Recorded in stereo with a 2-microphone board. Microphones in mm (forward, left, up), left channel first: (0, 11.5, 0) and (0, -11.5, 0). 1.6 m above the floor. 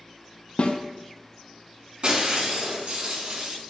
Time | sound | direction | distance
0.6 | a snare drum | 55° left (ahead or behind) | 0.5 m
2.0 | breaking glass | 55° right (ahead or behind) | 2.5 m